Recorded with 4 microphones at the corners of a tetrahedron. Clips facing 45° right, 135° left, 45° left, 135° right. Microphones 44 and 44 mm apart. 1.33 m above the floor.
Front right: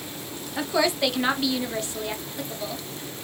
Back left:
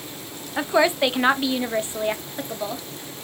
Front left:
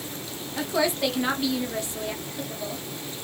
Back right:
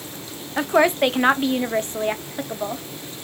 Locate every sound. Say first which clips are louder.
0.6 s a woman speaking: back left 4 dB, back right 7 dB; 170° right, 0.6 m